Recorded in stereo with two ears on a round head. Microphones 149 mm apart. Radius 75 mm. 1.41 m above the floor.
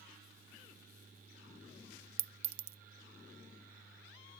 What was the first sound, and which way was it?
A clink, 35° right (ahead or behind).